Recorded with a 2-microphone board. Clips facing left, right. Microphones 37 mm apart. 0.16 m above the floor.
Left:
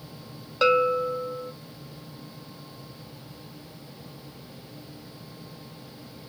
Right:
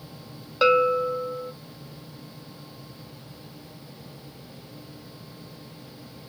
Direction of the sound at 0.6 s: 10° right (ahead or behind).